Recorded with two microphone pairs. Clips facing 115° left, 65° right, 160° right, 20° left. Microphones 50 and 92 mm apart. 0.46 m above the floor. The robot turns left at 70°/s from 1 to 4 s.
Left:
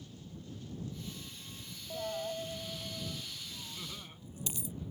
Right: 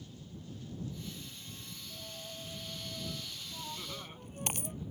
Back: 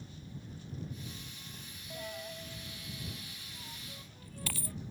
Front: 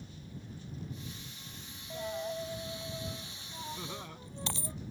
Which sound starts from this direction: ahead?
Laughter, at 3.8 s.